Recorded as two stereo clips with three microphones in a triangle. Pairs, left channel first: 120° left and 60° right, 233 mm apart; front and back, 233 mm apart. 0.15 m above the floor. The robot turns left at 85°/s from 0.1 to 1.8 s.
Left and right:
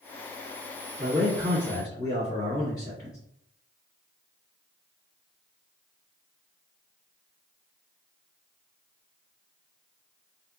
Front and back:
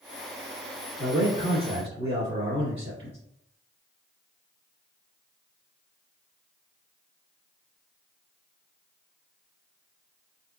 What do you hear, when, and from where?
1.0 s a man speaking: 120° right, 1.6 m; by 3.2 s 170° left, 1.6 m